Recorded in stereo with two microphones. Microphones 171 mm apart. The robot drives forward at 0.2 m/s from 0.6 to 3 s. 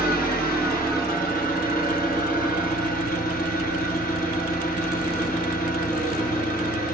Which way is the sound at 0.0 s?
60° left (ahead or behind).